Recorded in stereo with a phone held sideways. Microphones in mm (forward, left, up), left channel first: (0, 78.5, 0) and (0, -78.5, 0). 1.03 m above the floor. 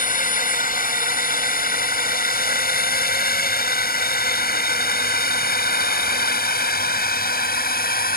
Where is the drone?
65° left (ahead or behind); by 8.2 s 75° left (ahead or behind).